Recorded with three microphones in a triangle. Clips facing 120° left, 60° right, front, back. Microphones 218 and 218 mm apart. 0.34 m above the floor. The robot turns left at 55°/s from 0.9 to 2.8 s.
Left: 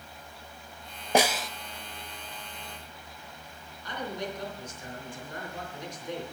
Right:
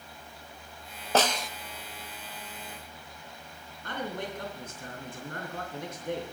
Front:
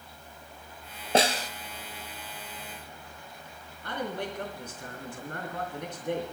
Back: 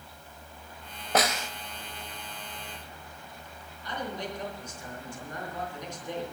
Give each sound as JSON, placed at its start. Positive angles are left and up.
{"t": 1.1, "sound": "a snare drum", "azimuth_deg": 45, "distance_m": 0.6}
{"t": 3.8, "sound": "a man speaking", "azimuth_deg": -30, "distance_m": 4.0}